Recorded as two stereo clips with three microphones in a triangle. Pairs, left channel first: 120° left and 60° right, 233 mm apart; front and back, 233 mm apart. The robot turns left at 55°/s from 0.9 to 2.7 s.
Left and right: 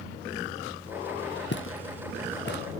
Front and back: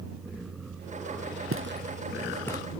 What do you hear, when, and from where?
1.5 s footsteps: 160° left; by 2.6 s 70° left